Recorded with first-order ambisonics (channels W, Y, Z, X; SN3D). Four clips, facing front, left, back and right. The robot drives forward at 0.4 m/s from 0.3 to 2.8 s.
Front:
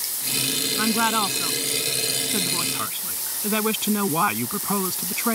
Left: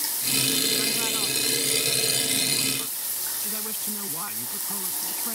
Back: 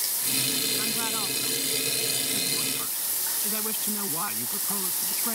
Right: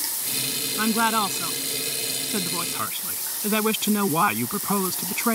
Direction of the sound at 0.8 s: 50° right.